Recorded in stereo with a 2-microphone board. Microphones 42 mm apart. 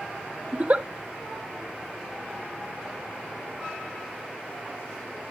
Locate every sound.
0.5 s a giggle: 35° right (ahead or behind), 0.9 m